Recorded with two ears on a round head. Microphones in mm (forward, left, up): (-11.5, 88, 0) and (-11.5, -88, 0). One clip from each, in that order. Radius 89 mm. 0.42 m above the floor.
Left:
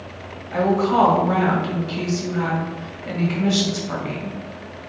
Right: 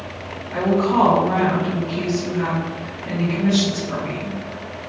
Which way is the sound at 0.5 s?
30° left (ahead or behind).